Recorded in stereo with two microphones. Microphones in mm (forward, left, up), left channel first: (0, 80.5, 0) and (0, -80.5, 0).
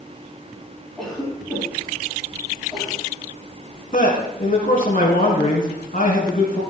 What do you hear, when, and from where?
1.0 s a cough: centre (ahead or behind), 4 m
3.9 s a man speaking: 60° left (ahead or behind), 3 m